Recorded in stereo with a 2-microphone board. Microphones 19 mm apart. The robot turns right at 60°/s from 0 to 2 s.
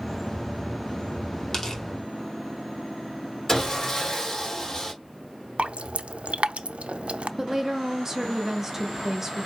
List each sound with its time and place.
1.5 s tearing paper: 20° left (ahead or behind), 1.9 m; by 1.8 s 35° left (ahead or behind), 1.9 m
3.5 s sawing: 20° left (ahead or behind), 1.9 m
5.6 s dripping: 80° right, 0.5 m
7.4 s a woman speaking: 20° right (ahead or behind), 1.1 m